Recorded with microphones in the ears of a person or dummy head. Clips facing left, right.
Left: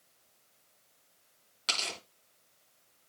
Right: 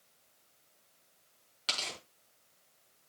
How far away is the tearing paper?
About 4.5 m.